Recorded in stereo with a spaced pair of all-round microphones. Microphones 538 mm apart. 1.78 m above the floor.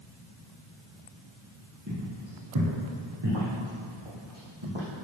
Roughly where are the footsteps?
Right.